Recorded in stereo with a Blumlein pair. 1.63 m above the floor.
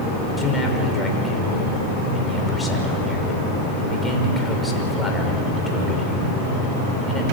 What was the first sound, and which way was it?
A man speaking, 10° left.